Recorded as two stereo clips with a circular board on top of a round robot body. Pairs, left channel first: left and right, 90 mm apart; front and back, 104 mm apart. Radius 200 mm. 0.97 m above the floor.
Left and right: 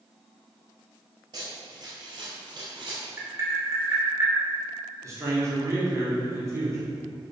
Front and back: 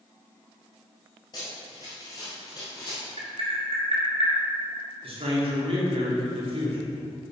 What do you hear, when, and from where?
1.3 s running footsteps: 55° right, 1.5 m
3.2 s tapping: 150° right, 3 m
5.0 s a man speaking: 150° right, 2 m